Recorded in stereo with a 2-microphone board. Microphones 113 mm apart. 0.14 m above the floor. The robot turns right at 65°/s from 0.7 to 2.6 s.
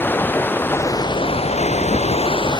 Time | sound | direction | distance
0.0 | running water | 15° left | ?